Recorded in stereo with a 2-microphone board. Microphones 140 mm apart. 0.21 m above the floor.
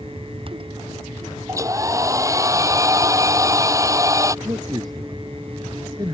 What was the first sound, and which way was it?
A hair dryer, 25° right (ahead or behind).